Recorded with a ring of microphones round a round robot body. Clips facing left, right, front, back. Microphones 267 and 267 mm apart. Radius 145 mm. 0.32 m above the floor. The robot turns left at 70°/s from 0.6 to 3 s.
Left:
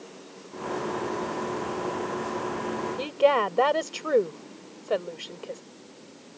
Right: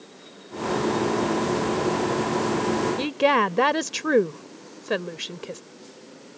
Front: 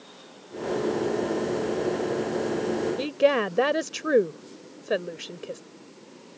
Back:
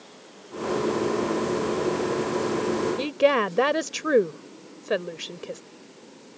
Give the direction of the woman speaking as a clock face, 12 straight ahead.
3 o'clock.